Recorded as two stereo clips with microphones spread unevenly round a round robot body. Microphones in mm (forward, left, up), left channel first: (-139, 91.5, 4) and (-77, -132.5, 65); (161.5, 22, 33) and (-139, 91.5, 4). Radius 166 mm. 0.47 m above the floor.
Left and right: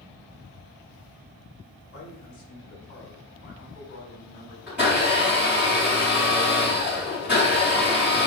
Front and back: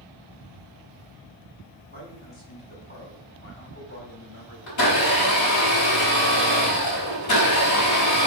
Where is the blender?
15° left, 4 m.